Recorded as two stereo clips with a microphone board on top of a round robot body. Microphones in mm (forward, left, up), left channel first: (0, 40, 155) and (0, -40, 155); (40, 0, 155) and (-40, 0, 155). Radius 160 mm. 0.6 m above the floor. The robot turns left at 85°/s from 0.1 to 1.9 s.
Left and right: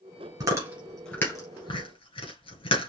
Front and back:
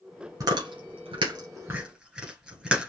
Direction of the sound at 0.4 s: 135° right.